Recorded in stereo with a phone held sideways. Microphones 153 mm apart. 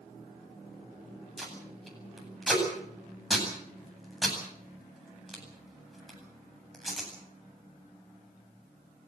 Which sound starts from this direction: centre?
Tape being pulled, at 1.4 s.